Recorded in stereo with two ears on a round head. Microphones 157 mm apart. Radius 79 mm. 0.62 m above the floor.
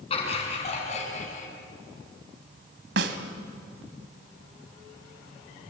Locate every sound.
0.1 s laughter: 35° left (ahead or behind), 7.5 m; by 1.5 s 45° left (ahead or behind), 6 m
3.0 s a snare drum: 70° right (ahead or behind), 2 m